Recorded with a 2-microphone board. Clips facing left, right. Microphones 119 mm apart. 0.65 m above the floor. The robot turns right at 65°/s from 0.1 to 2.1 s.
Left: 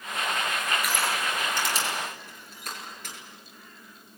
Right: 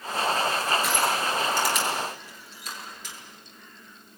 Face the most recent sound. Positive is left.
turn(degrees=55)  # may be behind; listen again after turning